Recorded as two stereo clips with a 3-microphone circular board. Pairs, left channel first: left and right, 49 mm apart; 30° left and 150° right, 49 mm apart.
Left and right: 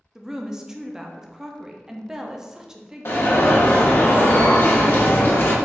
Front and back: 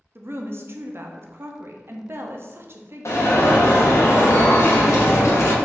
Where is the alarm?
50° left, 0.9 m.